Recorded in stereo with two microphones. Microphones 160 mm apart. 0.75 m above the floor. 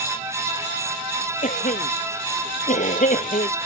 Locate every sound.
1.4 s a cough: 55° left (ahead or behind)